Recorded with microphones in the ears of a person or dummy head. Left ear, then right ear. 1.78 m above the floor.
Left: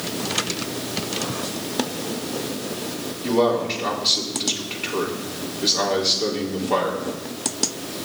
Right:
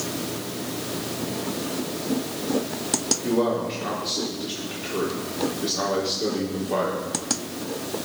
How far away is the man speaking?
About 4 m.